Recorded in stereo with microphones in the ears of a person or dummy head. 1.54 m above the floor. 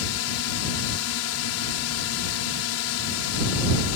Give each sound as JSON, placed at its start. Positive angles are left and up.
{"t": 0.0, "sound": "a drone", "side_deg": 75}